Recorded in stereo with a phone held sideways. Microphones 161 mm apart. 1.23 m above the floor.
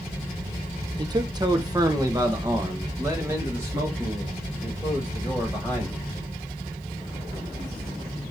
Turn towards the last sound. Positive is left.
turn(degrees=-15)  # may be behind; listen again after turning